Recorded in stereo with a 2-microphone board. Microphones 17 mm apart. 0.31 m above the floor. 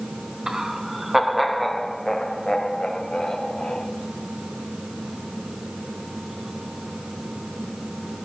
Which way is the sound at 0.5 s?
35° right (ahead or behind).